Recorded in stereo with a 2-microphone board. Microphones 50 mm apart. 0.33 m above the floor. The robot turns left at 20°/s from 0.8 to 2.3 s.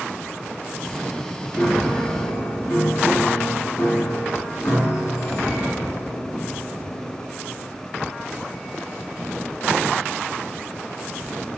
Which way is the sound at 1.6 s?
50° left (ahead or behind).